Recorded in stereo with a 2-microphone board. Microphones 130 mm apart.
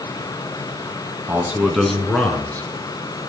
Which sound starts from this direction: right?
A man speaking, at 1.3 s.